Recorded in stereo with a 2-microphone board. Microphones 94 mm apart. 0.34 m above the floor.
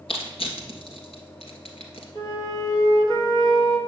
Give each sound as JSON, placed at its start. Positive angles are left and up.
{"t": 0.1, "sound": "crushing", "side_deg": 85, "distance_m": 1.6}
{"t": 2.1, "sound": "a flute", "side_deg": 45, "distance_m": 1.4}